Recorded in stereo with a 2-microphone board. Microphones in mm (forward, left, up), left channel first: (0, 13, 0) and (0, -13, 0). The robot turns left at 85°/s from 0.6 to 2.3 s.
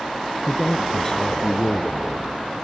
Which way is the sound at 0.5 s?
170° right.